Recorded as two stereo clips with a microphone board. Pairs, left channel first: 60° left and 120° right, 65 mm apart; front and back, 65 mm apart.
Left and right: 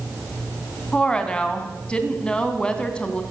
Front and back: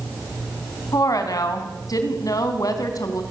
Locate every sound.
0.9 s a woman speaking: 15° right, 3 m